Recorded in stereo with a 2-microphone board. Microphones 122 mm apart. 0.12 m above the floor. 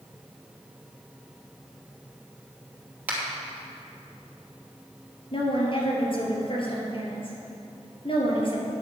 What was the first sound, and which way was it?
A finger snap, 15° right (ahead or behind).